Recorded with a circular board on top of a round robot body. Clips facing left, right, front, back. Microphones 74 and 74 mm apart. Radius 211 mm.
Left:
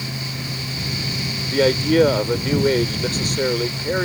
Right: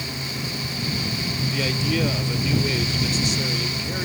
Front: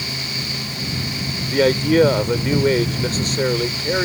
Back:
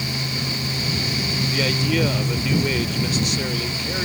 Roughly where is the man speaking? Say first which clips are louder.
Left 10 dB, front 9 dB; ahead left.